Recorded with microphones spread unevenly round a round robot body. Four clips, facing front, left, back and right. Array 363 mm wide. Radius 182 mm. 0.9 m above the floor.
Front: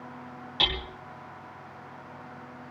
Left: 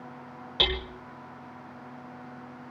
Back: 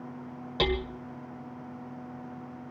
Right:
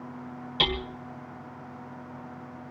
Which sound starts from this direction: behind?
Hammering, at 0.6 s.